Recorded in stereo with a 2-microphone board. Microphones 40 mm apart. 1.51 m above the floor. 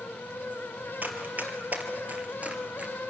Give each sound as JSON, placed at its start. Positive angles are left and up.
{"t": 1.0, "sound": "running footsteps", "side_deg": -45, "distance_m": 2.5}